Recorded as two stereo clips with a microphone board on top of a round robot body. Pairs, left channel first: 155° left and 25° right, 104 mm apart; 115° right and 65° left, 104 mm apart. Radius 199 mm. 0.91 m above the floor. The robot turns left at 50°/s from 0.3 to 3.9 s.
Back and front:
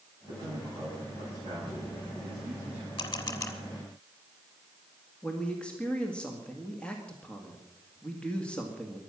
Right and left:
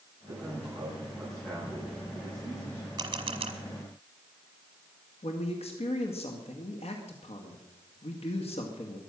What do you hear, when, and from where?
0.3 s a man speaking: 25° left, 8 m; by 2.9 s 100° right, 8 m
3.0 s a camera shutter: 120° left, 1.3 m; by 3.5 s 90° left, 1.3 m
5.2 s a man speaking: 125° right, 2 m